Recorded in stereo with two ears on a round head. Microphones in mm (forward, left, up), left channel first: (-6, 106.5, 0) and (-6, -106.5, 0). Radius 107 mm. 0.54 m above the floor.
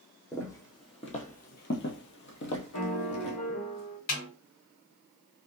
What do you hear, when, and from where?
0.3 s footsteps: 10° left (ahead or behind), 1.1 m; by 3.4 s 50° left (ahead or behind), 1.3 m
2.7 s a piano: 75° left (ahead or behind), 1.0 m
4.1 s a snare drum: 45° left (ahead or behind), 1.9 m